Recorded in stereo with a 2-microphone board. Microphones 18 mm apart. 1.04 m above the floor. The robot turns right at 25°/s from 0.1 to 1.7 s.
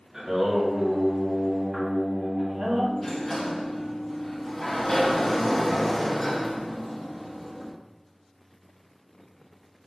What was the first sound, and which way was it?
Singing, 145° right.